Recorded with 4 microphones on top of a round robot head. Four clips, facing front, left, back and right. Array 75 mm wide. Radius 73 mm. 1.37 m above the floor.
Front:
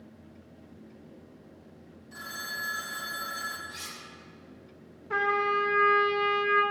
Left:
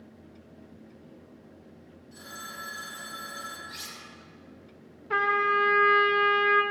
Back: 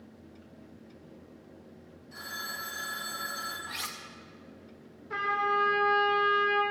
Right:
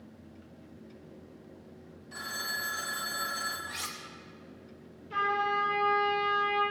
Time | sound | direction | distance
2.1 | a phone ringing | 80° right | 3 m
3.7 | cutlery clinking | 145° right | 1.1 m
5.1 | a trumpet | 70° left | 1.5 m